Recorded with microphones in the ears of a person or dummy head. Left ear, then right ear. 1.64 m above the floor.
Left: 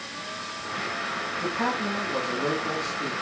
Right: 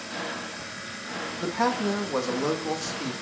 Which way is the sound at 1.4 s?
85° right.